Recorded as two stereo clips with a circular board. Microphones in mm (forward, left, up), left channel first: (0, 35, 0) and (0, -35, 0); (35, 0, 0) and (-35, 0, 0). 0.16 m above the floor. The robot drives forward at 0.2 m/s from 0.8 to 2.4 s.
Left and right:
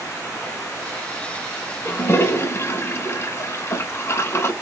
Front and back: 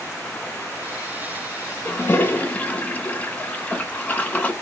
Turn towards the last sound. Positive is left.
turn(degrees=60)